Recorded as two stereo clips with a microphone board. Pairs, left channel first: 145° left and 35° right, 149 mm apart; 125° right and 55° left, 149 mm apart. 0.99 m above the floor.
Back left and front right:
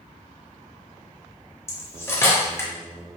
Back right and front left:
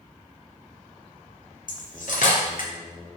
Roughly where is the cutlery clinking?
Behind right.